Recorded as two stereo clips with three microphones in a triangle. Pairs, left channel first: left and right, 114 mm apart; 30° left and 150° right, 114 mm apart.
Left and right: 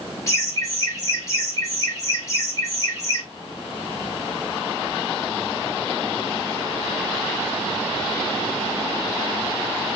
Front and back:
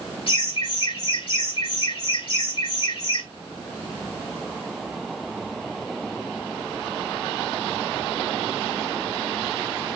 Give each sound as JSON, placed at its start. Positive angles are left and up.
{"t": 0.3, "sound": "laughter", "azimuth_deg": 35, "distance_m": 2.5}